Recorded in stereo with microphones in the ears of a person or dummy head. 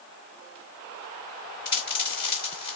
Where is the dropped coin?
30° left (ahead or behind), 1.8 m.